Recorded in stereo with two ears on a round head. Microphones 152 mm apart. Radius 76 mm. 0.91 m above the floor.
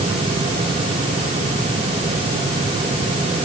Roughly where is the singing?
No singing in this recording.